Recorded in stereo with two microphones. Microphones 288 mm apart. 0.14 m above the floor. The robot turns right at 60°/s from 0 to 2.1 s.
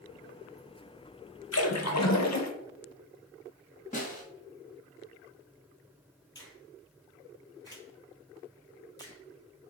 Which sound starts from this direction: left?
A snare drum, at 3.9 s.